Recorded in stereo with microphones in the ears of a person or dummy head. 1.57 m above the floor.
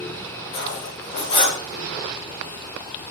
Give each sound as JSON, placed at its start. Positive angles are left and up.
{"t": 0.5, "sound": "cutlery clinking", "side_deg": 65, "distance_m": 1.4}